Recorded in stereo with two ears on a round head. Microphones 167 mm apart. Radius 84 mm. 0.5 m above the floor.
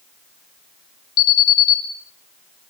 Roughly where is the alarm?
Left.